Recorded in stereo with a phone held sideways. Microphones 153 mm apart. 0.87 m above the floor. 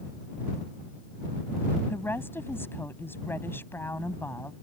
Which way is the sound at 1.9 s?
15° left (ahead or behind).